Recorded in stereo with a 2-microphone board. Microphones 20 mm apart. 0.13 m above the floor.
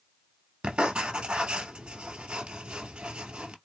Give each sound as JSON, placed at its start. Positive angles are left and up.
{"t": 0.6, "sound": "writing", "side_deg": -65, "distance_m": 0.8}